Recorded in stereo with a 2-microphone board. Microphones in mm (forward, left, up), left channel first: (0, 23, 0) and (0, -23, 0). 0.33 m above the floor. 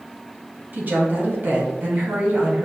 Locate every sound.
0.7 s a woman speaking: 40° right (ahead or behind), 1.9 m